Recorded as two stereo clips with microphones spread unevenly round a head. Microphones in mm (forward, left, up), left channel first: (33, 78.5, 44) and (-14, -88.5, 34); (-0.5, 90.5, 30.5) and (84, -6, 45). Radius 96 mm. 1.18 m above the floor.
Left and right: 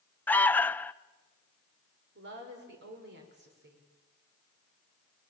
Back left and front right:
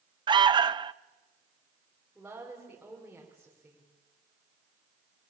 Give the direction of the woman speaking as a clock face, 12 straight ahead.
4 o'clock.